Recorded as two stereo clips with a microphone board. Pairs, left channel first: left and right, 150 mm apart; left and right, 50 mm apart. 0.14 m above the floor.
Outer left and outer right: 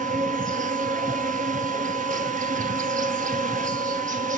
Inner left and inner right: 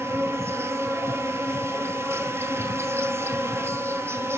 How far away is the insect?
About 0.8 m.